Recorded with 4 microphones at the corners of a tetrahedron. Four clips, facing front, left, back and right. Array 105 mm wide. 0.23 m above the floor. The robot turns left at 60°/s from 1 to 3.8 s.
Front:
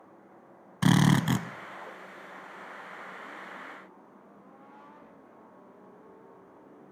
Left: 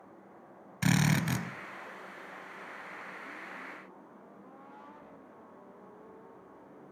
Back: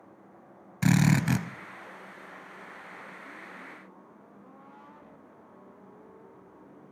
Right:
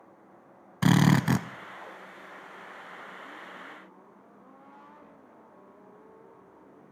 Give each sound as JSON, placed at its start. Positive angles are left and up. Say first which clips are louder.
{"t": 0.8, "sound": "a drill", "louder": "right 6 dB, front 1 dB", "azimuth_deg": -50, "distance_m": 0.7}